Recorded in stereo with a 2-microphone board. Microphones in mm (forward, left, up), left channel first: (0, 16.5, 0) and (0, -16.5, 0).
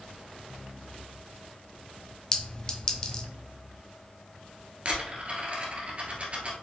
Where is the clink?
25° left (ahead or behind), 0.8 m.